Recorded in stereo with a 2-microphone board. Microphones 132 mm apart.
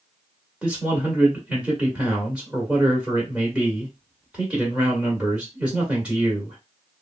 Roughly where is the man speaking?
Centre.